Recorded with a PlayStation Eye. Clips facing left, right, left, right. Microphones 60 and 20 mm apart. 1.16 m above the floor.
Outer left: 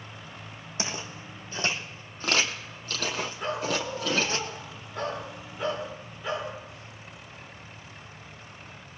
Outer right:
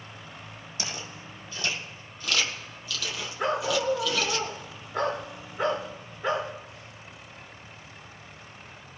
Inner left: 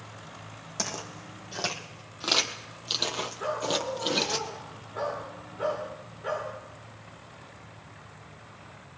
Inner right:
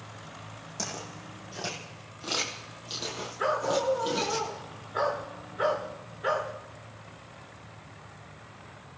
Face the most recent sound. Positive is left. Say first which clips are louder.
# outer right 6 dB, inner right 4 dB
turn(degrees=-45)  # may be behind; listen again after turning